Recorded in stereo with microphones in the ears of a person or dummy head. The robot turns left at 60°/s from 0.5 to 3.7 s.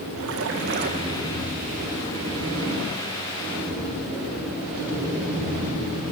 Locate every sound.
0.2 s a splash: 110° right, 1.8 m; by 1.4 s 165° right, 1.8 m